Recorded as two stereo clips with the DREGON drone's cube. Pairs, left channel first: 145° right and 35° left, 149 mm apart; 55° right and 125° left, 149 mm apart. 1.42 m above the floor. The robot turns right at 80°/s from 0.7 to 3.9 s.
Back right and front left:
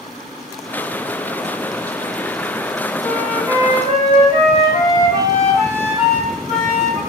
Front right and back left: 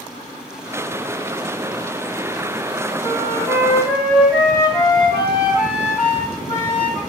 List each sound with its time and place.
3.0 s a flute: 165° left, 1.6 m; by 7.0 s 125° right, 1.6 m